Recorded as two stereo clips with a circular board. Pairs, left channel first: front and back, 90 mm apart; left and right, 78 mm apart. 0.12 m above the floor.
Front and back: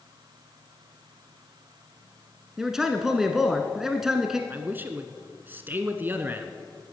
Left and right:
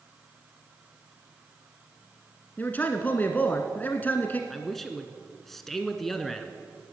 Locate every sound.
2.6 s a man speaking: 105° left, 1.1 m
4.5 s a man speaking: 170° left, 1.1 m